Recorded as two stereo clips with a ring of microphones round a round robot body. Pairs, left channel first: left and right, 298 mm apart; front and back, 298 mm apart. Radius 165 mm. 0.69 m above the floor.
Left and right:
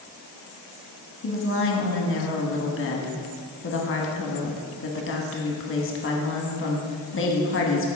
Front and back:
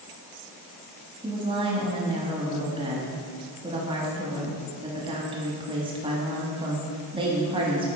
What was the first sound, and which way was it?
A woman speaking, 115° left.